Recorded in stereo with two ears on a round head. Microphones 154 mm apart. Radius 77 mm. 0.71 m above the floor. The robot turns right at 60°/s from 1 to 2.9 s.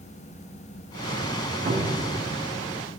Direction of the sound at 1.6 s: 40° right (ahead or behind).